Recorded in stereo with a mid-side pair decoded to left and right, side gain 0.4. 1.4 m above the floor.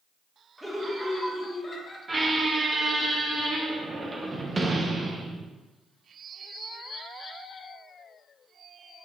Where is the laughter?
Straight ahead, 1.5 m; by 2.0 s 35° left, 1.3 m.